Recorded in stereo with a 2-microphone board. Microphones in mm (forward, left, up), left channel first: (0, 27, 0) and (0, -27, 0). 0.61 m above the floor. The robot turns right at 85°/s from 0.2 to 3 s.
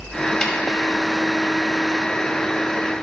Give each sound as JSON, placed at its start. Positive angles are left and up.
{"t": 0.4, "sound": "a snare drum", "side_deg": 15, "distance_m": 2.0}